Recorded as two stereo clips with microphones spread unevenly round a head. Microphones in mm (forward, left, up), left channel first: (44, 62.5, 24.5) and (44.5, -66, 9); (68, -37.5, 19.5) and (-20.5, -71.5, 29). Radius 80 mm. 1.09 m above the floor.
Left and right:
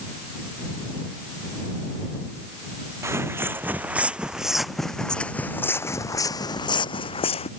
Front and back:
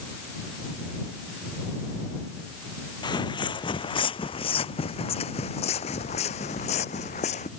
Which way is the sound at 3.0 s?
20° right.